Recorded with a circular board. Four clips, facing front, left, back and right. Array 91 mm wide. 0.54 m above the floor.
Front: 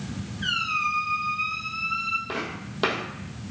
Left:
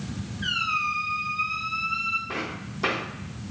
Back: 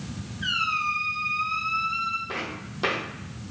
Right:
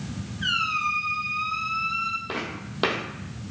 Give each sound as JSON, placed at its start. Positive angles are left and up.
{"t": 0.4, "sound": "a squeak", "azimuth_deg": -95, "distance_m": 1.4}
{"t": 2.3, "sound": "footsteps", "azimuth_deg": -60, "distance_m": 1.2}